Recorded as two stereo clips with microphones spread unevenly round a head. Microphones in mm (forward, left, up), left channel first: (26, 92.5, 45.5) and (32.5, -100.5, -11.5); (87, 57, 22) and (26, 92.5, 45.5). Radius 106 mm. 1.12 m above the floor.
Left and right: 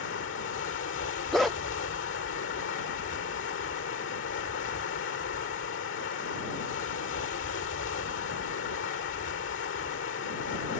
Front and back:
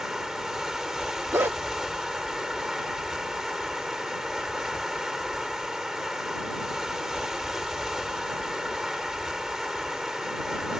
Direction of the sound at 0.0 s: 70° left.